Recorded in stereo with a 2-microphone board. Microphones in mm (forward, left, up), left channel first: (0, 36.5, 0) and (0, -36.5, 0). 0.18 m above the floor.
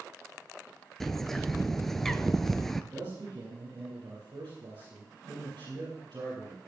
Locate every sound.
1.0 s a bird: 5° left (ahead or behind), 0.7 m
2.9 s a man speaking: 75° right (ahead or behind), 5.5 m